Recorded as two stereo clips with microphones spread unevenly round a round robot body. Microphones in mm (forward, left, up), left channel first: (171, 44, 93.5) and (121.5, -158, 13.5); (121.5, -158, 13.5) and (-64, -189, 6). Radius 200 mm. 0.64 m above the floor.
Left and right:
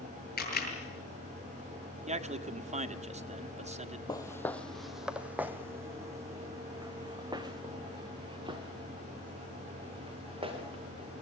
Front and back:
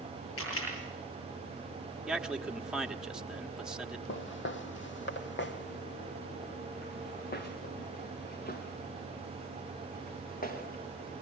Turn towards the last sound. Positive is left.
turn(degrees=-35)